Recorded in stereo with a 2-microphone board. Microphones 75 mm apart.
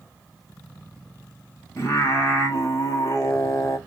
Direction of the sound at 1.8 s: 45° left (ahead or behind).